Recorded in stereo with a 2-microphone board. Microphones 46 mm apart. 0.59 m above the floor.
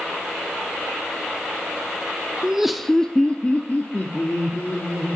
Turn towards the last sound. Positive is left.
turn(degrees=60)  # may be behind; listen again after turning